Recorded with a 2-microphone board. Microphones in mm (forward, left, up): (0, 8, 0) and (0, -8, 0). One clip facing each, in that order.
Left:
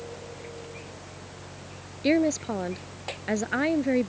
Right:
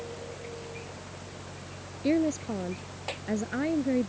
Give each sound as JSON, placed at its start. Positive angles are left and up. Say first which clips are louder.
{"t": 2.0, "sound": "a woman speaking", "louder": "left 3 dB", "side_deg": 30}